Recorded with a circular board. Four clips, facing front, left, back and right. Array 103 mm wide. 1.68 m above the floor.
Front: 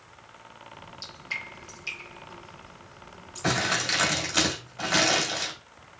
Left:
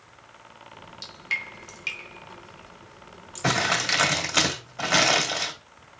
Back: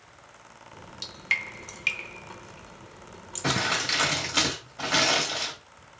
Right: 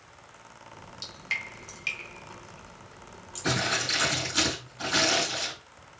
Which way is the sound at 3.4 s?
95° left.